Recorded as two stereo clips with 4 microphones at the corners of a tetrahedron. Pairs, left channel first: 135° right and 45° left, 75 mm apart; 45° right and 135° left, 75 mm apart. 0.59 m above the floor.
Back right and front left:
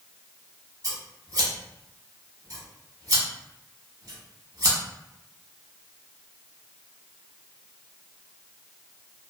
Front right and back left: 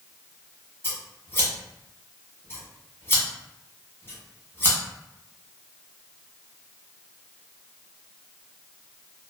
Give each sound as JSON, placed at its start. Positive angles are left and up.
{"t": 0.8, "sound": "scissors", "azimuth_deg": 10, "distance_m": 0.9}